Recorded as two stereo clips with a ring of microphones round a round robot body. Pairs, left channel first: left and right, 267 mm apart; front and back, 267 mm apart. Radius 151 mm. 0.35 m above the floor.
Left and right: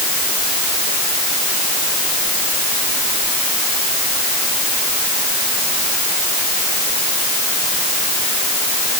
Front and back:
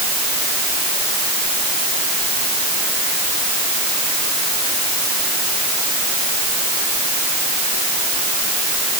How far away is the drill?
No drill in this recording.